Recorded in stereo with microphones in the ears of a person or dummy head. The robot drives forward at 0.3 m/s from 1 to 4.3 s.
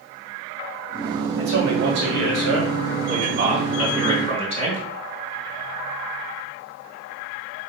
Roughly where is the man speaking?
Right.